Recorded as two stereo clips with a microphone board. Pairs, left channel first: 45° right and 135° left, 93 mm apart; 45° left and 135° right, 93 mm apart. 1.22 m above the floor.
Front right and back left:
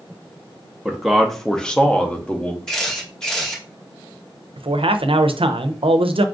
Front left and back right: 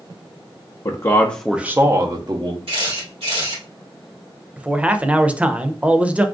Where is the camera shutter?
130° right, 1.8 m.